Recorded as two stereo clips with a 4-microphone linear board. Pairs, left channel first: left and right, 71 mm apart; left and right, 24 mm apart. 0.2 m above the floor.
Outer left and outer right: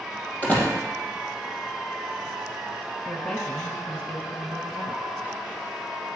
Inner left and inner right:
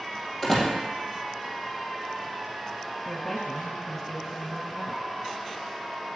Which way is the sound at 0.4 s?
20° left (ahead or behind).